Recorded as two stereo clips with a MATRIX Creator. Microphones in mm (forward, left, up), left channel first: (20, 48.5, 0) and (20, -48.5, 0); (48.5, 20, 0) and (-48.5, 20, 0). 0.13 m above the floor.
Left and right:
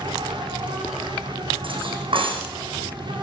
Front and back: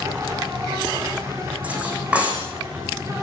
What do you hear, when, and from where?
0.0 s an insect: 120° right, 4.5 m
1.6 s cutlery clinking: 105° right, 5.5 m